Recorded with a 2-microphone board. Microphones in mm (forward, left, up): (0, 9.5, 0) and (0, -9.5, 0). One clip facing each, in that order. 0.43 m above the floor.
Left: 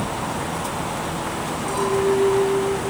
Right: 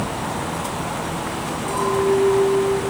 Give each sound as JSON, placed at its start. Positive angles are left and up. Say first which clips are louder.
{"t": 1.7, "sound": "a clink", "louder": "right 1 dB", "side_deg": 15, "distance_m": 5.5}